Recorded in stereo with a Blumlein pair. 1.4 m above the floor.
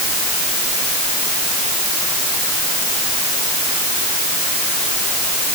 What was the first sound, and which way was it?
Only background noise.